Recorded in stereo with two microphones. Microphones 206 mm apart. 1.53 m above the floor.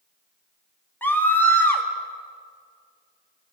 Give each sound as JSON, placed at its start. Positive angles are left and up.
{"t": 1.0, "sound": "a scream", "side_deg": 10, "distance_m": 3.0}